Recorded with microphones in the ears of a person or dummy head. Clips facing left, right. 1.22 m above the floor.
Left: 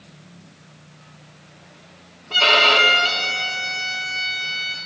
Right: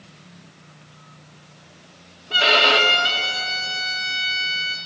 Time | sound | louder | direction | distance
2.3 | a violin | even | 15° right (ahead or behind) | 0.8 m